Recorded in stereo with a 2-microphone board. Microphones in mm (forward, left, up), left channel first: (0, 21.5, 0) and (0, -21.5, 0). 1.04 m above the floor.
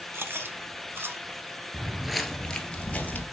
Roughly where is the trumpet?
I don't hear a trumpet.